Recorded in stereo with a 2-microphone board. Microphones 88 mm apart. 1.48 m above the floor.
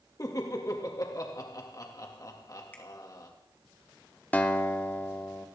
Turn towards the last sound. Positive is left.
turn(degrees=20)  # may be behind; listen again after turning